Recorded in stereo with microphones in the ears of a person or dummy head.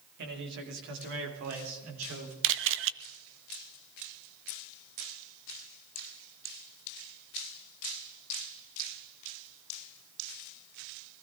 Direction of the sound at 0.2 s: 55° right (ahead or behind).